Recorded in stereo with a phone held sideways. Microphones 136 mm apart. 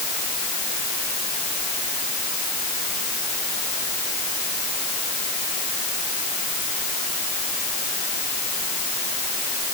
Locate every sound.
Only background noise.